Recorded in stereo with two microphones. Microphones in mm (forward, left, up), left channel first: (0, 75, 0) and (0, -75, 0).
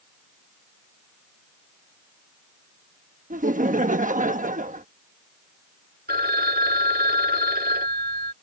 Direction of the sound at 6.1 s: 85° right.